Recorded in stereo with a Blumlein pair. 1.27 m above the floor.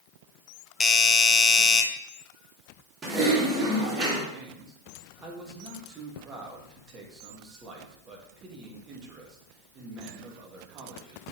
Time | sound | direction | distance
0.8 | a doorbell | 20° left | 1.0 m
3.0 | typing on a keyboard | 20° right | 2.5 m
4.3 | a man speaking | 25° right | 2 m